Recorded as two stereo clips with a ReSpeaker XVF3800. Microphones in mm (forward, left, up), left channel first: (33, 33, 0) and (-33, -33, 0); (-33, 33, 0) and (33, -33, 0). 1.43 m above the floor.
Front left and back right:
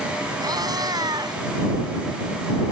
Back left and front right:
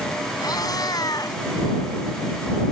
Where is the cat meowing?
Straight behind.